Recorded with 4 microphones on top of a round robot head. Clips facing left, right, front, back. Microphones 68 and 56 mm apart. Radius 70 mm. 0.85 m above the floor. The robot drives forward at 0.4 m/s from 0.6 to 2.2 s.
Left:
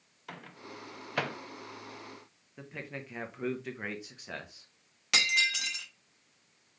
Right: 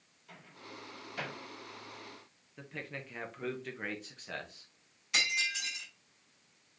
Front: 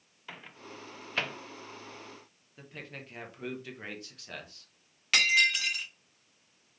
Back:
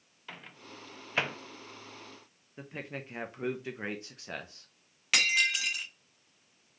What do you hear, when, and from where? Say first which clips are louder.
0.3 s a microwave: left 5 dB, front 1 dB; 85° left, 0.6 m; by 1.4 s 115° left, 0.7 m
2.6 s a man speaking: left 1 dB, back 4 dB; 165° left, 0.8 m
5.1 s breaking glass: left 4 dB, front 3 dB; 95° left, 1.4 m